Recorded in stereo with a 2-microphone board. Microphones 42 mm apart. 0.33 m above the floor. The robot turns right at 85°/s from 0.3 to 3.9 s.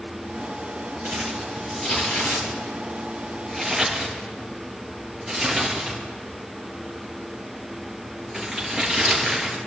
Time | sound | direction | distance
1.0 | crumpling | 50° right (ahead or behind) | 4.5 m